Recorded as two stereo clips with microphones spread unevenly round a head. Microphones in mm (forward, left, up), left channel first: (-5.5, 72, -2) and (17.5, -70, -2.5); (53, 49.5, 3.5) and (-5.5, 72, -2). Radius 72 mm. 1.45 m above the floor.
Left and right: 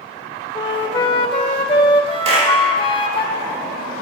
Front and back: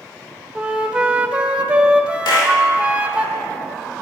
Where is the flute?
95° left, 1.3 m.